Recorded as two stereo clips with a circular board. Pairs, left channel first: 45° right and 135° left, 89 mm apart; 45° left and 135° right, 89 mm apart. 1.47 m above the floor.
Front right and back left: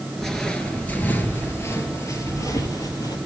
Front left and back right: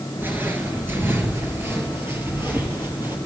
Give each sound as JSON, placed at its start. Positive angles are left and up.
{"t": 0.2, "sound": "footsteps", "azimuth_deg": -125, "distance_m": 1.5}